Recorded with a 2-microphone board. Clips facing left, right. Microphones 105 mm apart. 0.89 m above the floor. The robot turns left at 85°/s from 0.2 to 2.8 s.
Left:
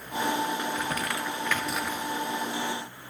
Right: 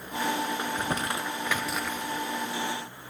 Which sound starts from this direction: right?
Crumpling, at 0.6 s.